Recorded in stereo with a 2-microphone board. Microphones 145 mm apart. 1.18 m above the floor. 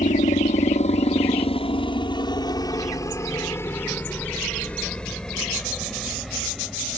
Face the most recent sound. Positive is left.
turn(degrees=-5)  # may be behind; listen again after turning